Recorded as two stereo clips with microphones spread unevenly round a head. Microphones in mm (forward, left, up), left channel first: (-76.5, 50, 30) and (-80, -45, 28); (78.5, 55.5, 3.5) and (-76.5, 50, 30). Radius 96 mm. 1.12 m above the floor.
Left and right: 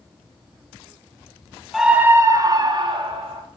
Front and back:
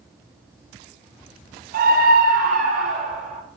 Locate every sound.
1.7 s a scream: straight behind, 0.8 m; by 3.4 s 120° right, 2 m